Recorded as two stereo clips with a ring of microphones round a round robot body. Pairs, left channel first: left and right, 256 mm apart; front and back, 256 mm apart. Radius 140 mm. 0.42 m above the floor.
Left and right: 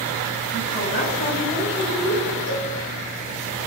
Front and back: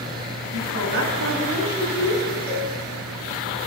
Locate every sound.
0.5 s a woman speaking: 145° left, 6 m
2.5 s a cowbell: 70° left, 4 m